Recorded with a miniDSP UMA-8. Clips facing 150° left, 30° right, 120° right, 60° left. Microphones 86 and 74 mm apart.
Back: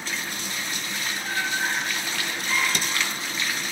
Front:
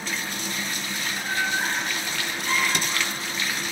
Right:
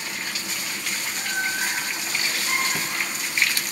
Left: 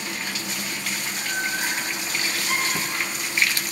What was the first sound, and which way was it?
Laughter, 25° right.